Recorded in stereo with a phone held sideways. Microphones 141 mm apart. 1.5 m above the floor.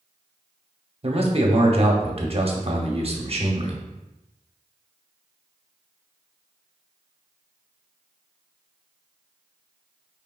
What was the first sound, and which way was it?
A man speaking, 45° right (ahead or behind).